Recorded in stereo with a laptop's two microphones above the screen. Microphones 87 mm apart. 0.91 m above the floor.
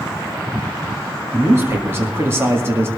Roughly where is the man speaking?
Right.